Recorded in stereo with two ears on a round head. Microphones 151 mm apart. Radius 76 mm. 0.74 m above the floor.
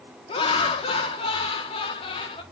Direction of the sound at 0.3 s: 35° left (ahead or behind).